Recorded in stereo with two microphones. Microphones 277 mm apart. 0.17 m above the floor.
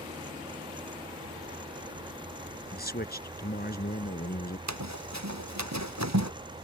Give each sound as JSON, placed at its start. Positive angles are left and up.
{"t": 2.7, "sound": "a man speaking", "side_deg": 35}
{"t": 4.7, "sound": "running footsteps", "side_deg": -75}